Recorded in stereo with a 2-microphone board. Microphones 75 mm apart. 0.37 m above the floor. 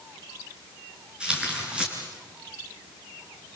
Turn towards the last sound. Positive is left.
turn(degrees=-10)  # may be behind; listen again after turning